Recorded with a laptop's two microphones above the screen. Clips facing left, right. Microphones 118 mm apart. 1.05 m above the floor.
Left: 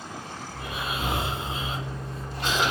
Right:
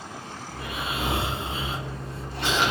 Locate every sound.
0.5 s snoring: 85° right, 1.5 m